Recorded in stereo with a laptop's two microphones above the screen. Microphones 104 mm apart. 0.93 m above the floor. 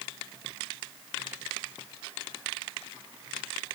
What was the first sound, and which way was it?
Only background noise.